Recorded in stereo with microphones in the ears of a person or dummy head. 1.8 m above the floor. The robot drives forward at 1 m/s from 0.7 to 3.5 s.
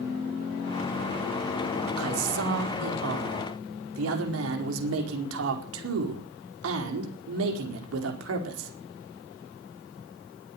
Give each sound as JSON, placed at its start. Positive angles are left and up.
{"t": 2.0, "sound": "a man speaking", "side_deg": -80, "distance_m": 4.5}